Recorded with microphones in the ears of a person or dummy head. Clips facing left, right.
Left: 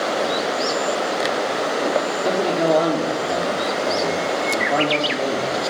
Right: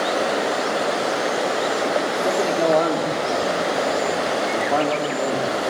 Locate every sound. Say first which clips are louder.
2.2 s a man speaking: even; 10° left (ahead or behind), 4.5 m